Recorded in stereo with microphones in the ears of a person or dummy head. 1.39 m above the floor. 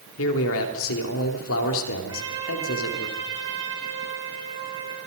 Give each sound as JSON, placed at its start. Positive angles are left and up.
{"t": 0.2, "sound": "a man speaking", "side_deg": 65, "distance_m": 3.5}
{"t": 2.1, "sound": "a trumpet", "side_deg": -25, "distance_m": 6.0}